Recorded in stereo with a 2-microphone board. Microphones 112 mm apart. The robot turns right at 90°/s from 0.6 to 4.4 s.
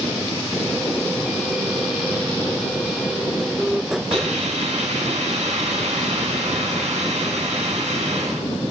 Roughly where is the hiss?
Right.